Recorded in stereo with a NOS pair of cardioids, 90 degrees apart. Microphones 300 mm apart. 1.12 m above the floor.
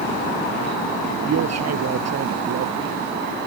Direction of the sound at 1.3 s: 55° right.